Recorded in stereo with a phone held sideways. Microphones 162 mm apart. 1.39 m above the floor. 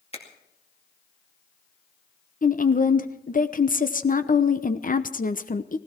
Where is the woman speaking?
55° left (ahead or behind), 0.9 m.